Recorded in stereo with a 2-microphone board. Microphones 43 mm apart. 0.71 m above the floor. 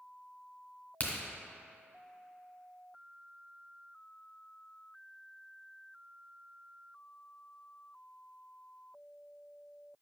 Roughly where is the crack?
Left.